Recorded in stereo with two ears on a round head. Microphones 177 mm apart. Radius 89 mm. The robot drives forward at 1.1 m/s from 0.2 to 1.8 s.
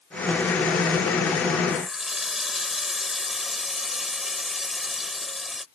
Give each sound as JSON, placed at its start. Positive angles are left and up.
{"t": 1.7, "sound": "a running tap", "side_deg": 0}